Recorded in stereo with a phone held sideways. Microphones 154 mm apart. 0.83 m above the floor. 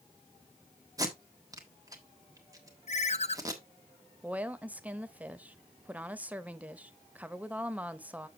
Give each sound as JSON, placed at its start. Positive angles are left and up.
{"t": 1.0, "sound": "tape being pulled", "side_deg": -25, "distance_m": 1.4}
{"t": 2.9, "sound": "a ringtone", "side_deg": 45, "distance_m": 0.6}
{"t": 4.2, "sound": "a woman speaking", "side_deg": -10, "distance_m": 0.6}